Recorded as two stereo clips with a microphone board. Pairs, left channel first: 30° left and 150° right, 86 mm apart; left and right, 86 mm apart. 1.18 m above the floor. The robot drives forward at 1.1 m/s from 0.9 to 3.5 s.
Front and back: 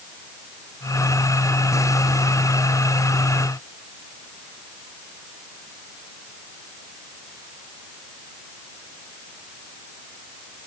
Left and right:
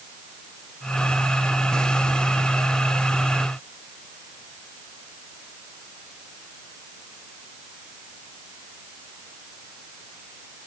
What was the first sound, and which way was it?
Only background noise.